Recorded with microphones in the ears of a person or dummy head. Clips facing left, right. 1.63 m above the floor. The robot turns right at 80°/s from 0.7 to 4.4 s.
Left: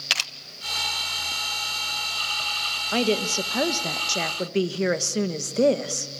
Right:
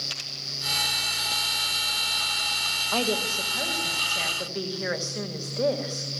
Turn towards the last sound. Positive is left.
turn(degrees=135)